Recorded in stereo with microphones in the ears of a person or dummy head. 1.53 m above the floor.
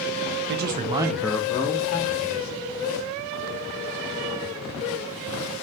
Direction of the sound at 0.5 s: 60° right (ahead or behind).